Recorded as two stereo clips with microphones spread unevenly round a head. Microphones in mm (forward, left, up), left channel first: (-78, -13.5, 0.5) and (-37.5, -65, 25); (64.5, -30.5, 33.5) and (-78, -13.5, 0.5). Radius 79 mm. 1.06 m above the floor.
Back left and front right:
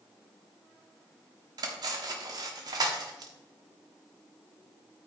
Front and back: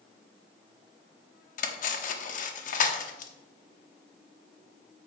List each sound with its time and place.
1.6 s cutlery clinking: 30° right, 1.0 m